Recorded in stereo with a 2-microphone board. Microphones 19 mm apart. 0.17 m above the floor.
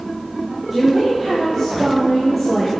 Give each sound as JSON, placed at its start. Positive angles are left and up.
{"t": 0.7, "sound": "a woman speaking", "side_deg": 0, "distance_m": 6.0}